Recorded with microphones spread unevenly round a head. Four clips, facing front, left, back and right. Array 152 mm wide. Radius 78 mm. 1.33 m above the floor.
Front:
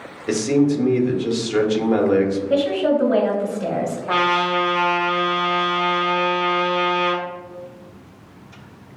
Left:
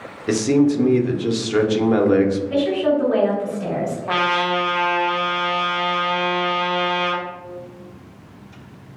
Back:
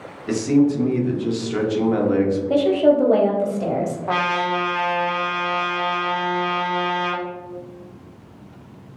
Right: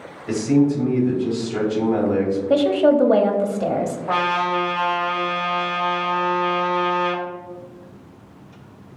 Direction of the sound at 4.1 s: 160° left.